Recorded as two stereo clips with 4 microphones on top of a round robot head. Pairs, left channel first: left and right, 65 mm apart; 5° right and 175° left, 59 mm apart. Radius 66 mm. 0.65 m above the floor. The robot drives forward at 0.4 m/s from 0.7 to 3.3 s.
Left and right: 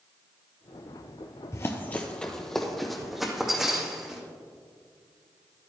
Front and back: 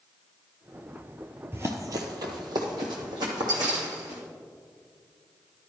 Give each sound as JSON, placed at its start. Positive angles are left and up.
{"t": 1.5, "sound": "running footsteps", "azimuth_deg": 130, "distance_m": 0.9}